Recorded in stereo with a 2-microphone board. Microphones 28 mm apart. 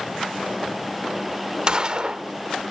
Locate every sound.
1.7 s a gunshot: 30° right (ahead or behind), 1.0 m